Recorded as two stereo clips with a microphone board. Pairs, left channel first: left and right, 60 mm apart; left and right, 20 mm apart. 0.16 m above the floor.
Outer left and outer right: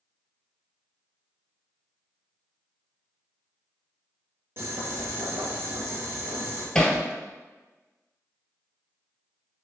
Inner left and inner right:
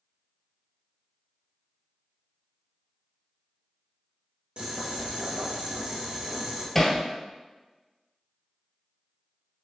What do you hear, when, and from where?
4.6 s boiling: 40° right (ahead or behind), 1.7 m
6.8 s hammering: 10° left (ahead or behind), 0.8 m